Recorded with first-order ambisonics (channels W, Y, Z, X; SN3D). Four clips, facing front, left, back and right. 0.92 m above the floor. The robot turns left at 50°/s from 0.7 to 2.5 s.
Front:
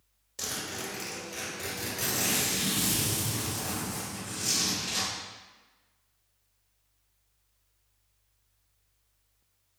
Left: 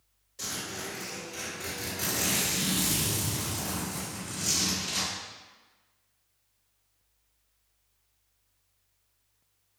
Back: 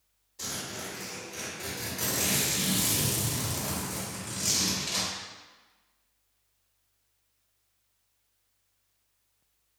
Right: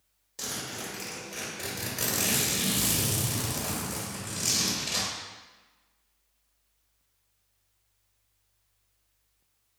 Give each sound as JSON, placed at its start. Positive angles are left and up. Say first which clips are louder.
{"t": 0.4, "sound": "a zipper", "louder": "even, front 1 dB", "azimuth_deg": -35, "distance_m": 1.3}